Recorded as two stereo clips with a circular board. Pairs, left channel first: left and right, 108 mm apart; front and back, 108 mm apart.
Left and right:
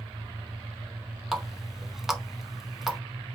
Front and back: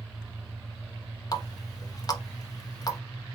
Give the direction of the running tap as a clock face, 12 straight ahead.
12 o'clock.